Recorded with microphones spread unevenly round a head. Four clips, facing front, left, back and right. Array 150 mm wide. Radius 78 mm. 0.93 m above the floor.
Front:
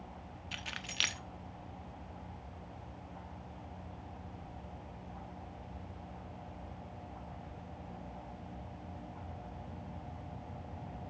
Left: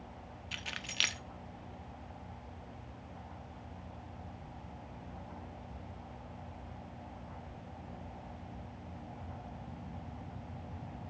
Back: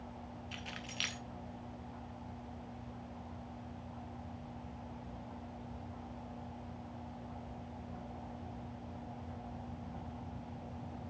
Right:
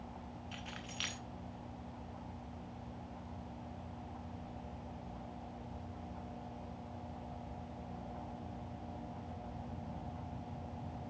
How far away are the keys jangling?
About 1.1 m.